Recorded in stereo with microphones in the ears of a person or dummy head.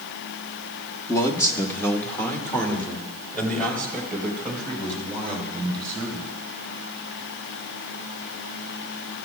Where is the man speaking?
20° left (ahead or behind), 1.2 m; by 6.3 s 5° left (ahead or behind), 7 m.